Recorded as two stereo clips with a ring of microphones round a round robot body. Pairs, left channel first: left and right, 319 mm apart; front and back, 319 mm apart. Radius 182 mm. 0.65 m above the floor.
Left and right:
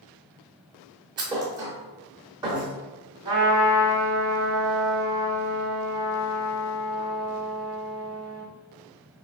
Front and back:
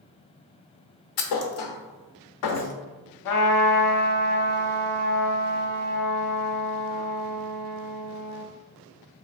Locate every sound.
1.2 s a thud: 10° right, 0.8 m
3.2 s a trumpet: 15° right, 0.7 m